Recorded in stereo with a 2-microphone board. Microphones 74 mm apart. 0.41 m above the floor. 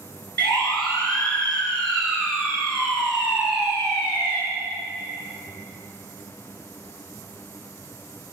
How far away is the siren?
About 7.5 m.